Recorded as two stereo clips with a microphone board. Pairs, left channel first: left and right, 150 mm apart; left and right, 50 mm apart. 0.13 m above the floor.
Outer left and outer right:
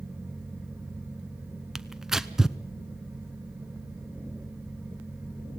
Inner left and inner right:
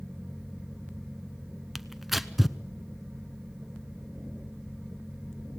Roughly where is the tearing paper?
Centre.